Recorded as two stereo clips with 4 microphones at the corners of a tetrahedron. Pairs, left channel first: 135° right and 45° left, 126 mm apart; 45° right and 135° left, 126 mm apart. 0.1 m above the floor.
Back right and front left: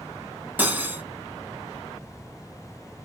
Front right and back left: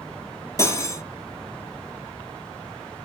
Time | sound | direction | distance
0.6 | cutlery clinking | 15° right | 0.7 m